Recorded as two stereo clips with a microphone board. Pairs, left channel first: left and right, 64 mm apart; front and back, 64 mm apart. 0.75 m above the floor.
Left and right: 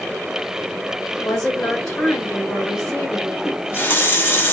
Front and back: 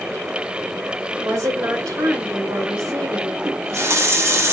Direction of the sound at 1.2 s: 155° left.